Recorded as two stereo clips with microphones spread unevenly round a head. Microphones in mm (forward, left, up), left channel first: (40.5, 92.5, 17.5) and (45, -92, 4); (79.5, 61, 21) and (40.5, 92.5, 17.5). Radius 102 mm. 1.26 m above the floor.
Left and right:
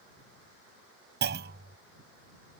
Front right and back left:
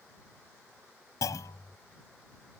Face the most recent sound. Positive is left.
turn(degrees=-60)